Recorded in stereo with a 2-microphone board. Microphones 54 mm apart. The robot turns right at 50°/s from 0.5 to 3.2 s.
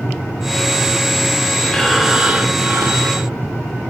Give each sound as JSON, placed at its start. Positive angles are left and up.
{"t": 1.7, "sound": "breathing", "azimuth_deg": 165, "distance_m": 0.7}